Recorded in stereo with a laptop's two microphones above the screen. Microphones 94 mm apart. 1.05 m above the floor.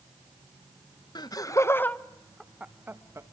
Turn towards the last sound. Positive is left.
turn(degrees=-30)  # may be behind; listen again after turning